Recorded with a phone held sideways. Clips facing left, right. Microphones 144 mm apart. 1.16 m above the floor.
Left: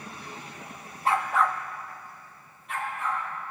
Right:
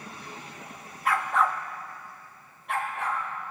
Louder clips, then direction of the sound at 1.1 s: Left 1 dB; 30° left (ahead or behind).